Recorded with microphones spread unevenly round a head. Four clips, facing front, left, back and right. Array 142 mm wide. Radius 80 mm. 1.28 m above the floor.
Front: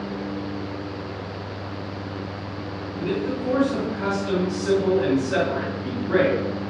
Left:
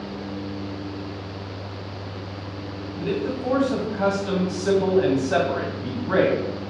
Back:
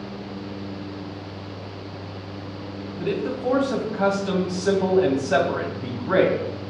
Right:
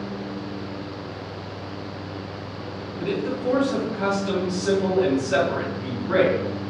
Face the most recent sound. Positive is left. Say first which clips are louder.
# even, even
turn(degrees=155)